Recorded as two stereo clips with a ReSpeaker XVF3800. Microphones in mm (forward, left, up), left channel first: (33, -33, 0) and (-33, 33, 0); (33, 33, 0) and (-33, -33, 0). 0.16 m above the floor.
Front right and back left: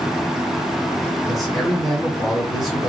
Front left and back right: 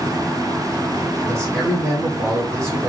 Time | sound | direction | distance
1.3 | a man speaking | 135° right | 1.9 m